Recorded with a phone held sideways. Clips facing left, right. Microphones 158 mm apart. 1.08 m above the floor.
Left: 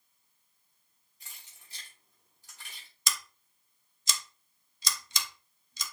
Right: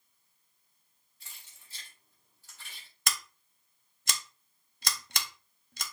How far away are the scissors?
About 0.7 m.